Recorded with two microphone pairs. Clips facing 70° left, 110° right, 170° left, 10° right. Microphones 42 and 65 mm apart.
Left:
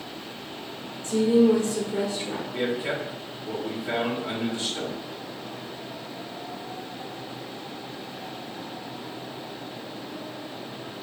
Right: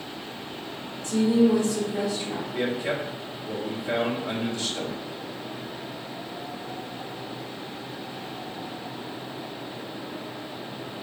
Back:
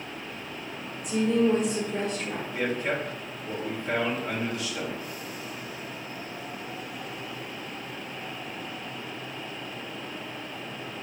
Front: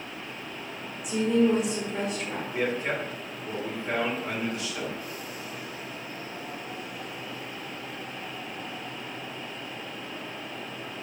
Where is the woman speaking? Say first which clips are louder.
Left 1 dB, even; 70° left, 1.0 m.